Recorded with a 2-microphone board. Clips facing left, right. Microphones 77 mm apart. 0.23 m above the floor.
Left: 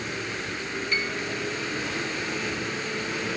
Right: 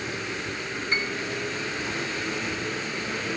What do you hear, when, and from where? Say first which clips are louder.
0.9 s a piano: right 1 dB; 30° right (ahead or behind)